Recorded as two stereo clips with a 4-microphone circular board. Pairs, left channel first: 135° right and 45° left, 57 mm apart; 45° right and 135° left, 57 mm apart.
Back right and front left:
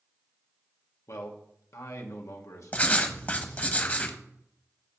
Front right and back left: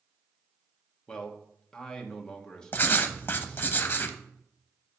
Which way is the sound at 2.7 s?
80° right.